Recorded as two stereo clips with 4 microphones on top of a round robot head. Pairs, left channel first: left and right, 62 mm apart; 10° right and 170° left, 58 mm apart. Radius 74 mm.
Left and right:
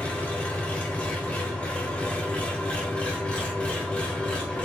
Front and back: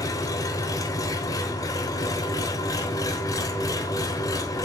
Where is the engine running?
15° left, 1.2 m.